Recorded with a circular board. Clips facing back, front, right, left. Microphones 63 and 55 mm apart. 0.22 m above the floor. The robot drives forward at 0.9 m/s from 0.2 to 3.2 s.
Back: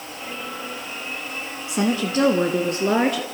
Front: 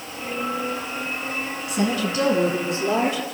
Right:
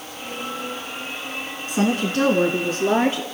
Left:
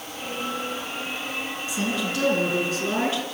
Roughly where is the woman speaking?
Behind right.